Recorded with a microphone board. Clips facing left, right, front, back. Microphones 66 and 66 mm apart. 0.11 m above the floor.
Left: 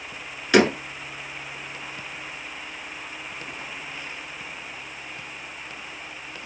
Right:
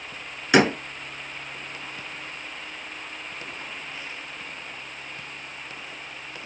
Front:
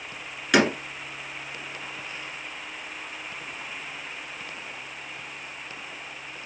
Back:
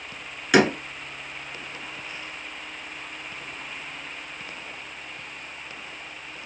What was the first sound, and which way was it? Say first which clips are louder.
A door slam: left 1 dB, back 2 dB; 105° right.